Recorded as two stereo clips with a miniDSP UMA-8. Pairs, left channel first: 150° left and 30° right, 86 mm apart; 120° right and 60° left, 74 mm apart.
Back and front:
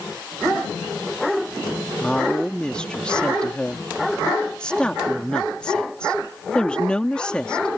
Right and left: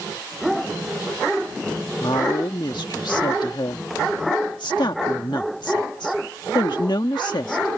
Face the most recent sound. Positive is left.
turn(degrees=-130)